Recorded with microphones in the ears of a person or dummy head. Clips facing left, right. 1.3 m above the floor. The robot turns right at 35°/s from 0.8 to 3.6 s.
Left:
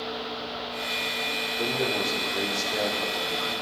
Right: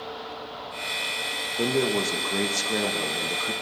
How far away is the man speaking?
About 1.7 m.